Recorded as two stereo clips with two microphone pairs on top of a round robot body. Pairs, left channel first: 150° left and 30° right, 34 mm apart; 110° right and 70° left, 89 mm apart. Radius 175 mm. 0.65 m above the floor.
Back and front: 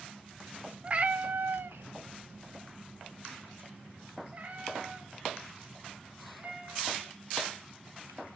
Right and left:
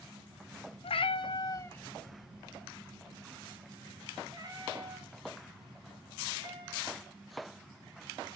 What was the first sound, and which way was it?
A cat meowing, 90° right.